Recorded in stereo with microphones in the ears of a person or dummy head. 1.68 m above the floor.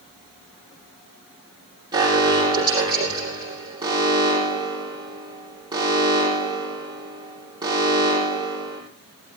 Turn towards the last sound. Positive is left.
turn(degrees=-25)  # may be behind; listen again after turning